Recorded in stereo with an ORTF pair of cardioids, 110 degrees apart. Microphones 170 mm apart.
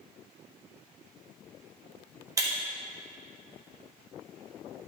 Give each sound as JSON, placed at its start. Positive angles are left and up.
{"t": 2.4, "sound": "breaking glass", "azimuth_deg": -20, "distance_m": 1.3}